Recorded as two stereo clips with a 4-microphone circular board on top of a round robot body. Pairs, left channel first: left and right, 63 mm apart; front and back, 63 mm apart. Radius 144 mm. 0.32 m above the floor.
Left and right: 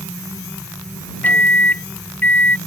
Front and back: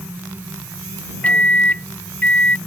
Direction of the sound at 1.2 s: 50° left.